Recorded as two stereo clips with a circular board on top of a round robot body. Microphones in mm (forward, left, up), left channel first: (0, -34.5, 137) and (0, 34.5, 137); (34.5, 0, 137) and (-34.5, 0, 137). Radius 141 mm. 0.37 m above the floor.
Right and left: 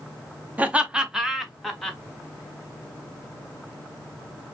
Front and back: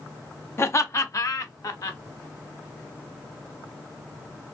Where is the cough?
I don't hear a cough.